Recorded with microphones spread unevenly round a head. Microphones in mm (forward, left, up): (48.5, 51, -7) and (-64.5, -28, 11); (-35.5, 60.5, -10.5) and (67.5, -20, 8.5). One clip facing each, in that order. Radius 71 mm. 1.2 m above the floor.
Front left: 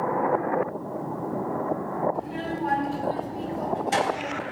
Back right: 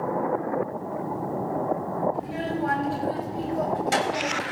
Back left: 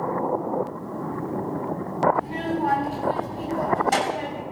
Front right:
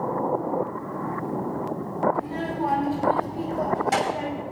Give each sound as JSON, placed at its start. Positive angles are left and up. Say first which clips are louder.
{"t": 2.1, "sound": "a child speaking", "louder": "back right 1 dB, back left 2 dB", "azimuth_deg": -110, "distance_m": 5.0}